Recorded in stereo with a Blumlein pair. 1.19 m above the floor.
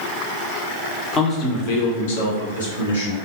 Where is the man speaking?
20° left, 0.7 m; by 3.2 s 75° left, 1.3 m.